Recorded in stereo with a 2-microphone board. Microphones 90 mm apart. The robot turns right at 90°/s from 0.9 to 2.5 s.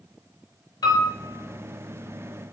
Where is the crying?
I don't hear crying.